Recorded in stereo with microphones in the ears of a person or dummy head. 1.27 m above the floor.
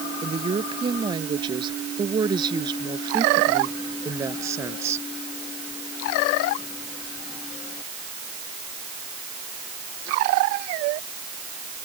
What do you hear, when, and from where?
0.2 s a woman speaking: 30° right (ahead or behind); by 5.1 s 15° right (ahead or behind)